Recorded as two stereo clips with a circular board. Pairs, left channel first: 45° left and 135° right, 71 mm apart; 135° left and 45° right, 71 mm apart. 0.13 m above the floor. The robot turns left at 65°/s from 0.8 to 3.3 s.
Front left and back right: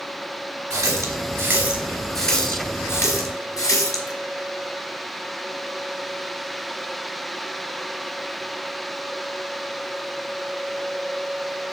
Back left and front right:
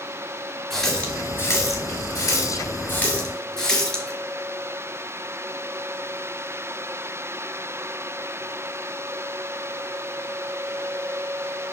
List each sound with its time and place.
0.7 s a running tap: 145° right, 1.5 m; by 4.2 s 55° left, 1.5 m